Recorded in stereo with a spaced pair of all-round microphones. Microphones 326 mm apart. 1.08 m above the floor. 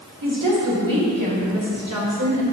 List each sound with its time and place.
0.2 s a woman speaking: 80° right, 3 m; by 2.4 s 65° right (ahead or behind), 3 m